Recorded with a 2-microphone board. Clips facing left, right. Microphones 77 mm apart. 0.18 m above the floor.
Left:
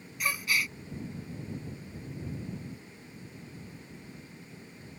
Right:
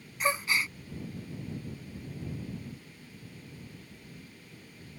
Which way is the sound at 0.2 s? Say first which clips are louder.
Right 2 dB; 30° right (ahead or behind).